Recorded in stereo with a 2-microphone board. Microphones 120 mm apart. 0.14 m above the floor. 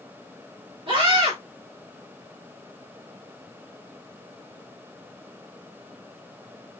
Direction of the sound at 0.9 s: 50° right (ahead or behind).